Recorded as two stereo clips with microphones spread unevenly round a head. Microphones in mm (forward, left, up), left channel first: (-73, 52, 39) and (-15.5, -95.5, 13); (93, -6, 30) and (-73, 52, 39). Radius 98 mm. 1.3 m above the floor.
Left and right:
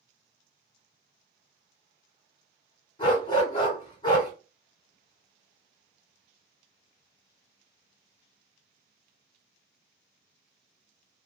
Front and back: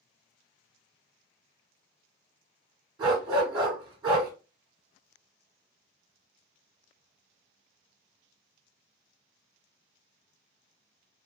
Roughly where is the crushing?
I don't hear crushing.